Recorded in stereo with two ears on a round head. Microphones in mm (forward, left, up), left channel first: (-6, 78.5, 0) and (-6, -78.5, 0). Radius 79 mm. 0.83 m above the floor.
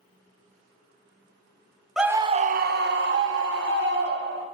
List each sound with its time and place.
2.0 s a scream: centre (ahead or behind), 0.5 m; by 4.5 s 65° right (ahead or behind), 1.8 m